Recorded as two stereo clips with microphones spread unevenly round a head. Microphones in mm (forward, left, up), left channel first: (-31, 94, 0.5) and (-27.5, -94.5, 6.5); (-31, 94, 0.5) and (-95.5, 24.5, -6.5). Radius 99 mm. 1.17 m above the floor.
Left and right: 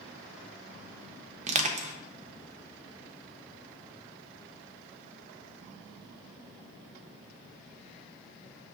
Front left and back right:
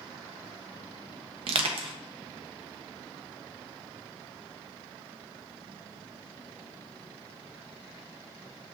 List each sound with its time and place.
1.5 s crushing: 145° right, 0.7 m